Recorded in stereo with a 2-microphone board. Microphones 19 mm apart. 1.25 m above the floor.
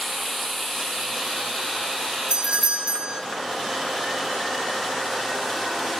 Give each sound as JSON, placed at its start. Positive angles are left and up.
{"t": 2.3, "sound": "a doorbell", "side_deg": -60, "distance_m": 0.9}